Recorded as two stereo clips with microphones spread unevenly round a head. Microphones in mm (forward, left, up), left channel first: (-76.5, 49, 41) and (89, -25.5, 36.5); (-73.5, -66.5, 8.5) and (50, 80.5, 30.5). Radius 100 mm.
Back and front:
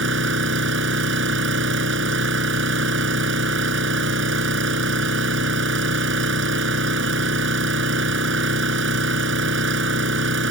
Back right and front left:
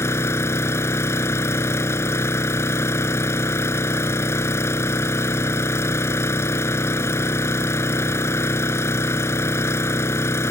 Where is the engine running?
50° right.